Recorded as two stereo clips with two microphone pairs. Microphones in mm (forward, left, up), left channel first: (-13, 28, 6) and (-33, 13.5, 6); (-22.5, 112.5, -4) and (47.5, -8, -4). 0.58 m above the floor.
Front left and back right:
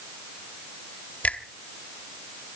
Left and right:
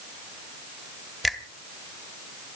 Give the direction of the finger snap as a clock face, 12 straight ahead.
11 o'clock.